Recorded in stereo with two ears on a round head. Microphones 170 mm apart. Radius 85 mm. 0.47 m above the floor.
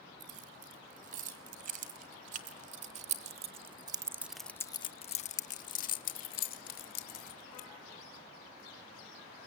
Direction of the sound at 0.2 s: 45° right (ahead or behind).